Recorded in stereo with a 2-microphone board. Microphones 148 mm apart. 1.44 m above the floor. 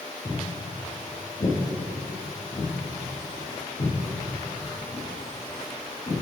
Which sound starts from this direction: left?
Footsteps, at 0.2 s.